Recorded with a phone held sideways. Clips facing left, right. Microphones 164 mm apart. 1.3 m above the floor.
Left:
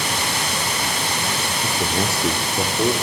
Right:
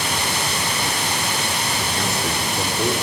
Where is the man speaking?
50° left (ahead or behind), 3 m; by 2.9 s 10° left (ahead or behind), 3 m.